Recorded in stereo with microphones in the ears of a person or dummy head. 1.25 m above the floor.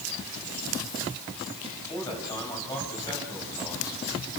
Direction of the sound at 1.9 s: 15° left (ahead or behind).